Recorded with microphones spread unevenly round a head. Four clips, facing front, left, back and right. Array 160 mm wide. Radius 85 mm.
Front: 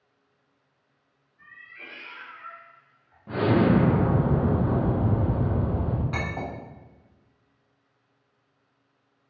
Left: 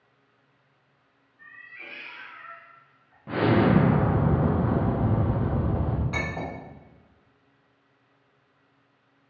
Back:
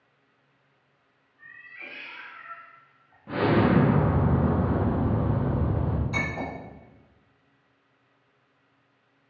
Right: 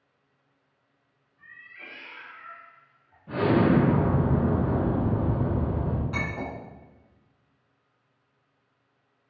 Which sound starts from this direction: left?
An explosion, at 3.3 s.